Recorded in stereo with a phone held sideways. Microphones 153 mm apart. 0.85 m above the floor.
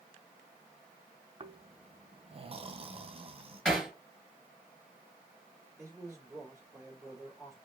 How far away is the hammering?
About 3 m.